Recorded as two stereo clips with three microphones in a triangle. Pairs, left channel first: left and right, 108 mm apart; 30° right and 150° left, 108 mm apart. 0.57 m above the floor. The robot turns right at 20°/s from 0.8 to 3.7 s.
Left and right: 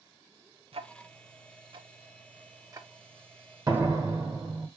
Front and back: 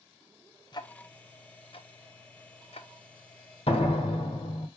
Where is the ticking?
75° right, 0.5 m; by 4.7 s 15° right, 0.5 m.